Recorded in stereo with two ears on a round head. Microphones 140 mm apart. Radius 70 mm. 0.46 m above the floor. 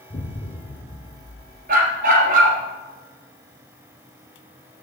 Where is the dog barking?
55° right (ahead or behind), 3 m.